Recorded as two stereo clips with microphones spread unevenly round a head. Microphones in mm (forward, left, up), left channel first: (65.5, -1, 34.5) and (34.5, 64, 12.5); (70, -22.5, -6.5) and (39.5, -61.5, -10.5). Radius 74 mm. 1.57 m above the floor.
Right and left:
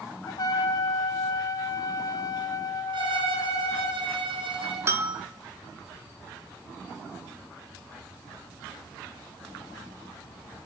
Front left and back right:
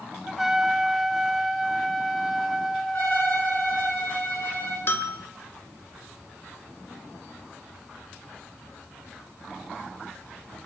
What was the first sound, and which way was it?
A trumpet, 45° right.